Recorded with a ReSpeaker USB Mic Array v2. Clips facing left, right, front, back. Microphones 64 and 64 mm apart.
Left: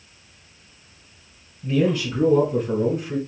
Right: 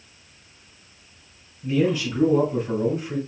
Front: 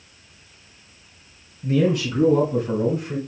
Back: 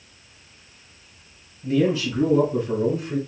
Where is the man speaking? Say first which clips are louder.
Left 1 dB, front 1 dB; 5° left, 3 m; by 3.2 s straight ahead, 2.5 m.